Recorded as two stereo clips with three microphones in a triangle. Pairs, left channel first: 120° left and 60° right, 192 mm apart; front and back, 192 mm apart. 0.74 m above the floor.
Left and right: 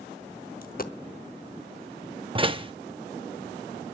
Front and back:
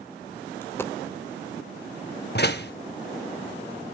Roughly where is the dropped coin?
Left.